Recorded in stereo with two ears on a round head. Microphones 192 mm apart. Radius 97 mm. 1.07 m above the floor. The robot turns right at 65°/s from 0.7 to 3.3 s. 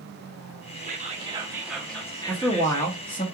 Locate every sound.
0.8 s whispering: 65° right, 0.7 m; by 3.0 s 80° left, 0.7 m
2.3 s a man speaking: centre (ahead or behind), 0.6 m; by 3.2 s 25° left (ahead or behind), 0.6 m